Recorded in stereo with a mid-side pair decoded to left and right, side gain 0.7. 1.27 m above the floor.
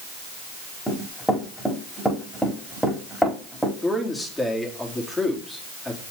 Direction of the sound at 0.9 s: Straight ahead.